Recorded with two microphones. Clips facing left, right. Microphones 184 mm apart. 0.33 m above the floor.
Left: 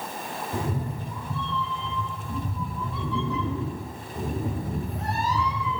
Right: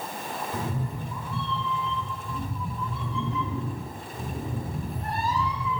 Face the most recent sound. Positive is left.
turn(degrees=85)